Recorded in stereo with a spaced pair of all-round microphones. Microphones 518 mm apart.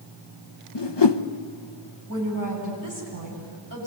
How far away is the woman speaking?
About 8.5 m.